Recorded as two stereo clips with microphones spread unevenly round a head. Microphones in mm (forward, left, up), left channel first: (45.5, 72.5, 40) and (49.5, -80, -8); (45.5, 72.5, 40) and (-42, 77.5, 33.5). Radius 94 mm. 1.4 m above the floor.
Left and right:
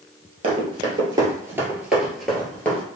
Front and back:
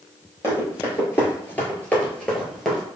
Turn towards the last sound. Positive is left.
turn(degrees=70)